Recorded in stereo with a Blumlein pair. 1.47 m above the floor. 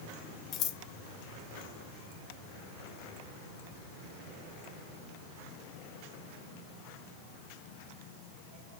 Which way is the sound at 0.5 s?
35° left.